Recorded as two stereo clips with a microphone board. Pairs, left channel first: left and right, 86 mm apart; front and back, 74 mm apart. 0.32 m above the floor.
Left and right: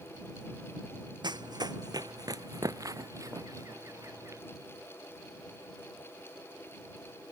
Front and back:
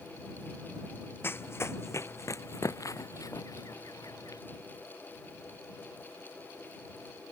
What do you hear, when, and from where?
1.2 s running footsteps: 60° right; by 4.4 s 35° right